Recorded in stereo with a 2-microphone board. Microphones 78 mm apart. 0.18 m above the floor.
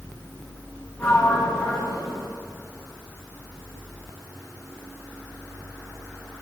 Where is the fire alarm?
I don't hear a fire alarm.